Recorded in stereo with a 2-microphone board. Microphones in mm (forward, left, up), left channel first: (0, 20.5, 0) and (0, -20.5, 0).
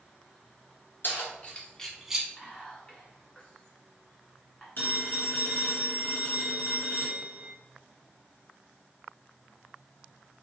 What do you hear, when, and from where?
1.0 s keys jangling: 55° left (ahead or behind), 1.4 m; by 2.3 s 20° right (ahead or behind), 1.0 m
2.4 s whispering: 20° left (ahead or behind), 1.7 m
4.8 s a phone ringing: 60° left (ahead or behind), 1.8 m